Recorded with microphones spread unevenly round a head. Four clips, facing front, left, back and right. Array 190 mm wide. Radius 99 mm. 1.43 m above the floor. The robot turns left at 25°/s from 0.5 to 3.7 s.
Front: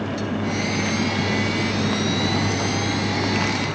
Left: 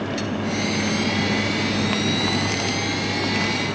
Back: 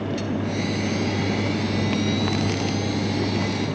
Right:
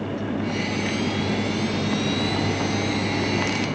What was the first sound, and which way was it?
Only background noise.